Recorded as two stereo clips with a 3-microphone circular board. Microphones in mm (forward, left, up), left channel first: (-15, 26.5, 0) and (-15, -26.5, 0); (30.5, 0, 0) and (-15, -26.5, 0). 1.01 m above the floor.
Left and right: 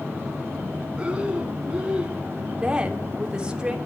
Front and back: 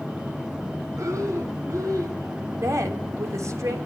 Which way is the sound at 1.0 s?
160° right.